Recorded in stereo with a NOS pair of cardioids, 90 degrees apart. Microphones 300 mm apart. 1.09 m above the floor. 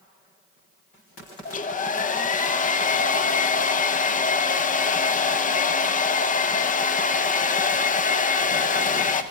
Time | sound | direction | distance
1.4 | a hair dryer | 25° left | 0.5 m